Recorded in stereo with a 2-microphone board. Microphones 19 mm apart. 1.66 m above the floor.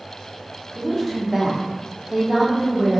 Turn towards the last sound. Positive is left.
turn(degrees=-65)  # may be behind; listen again after turning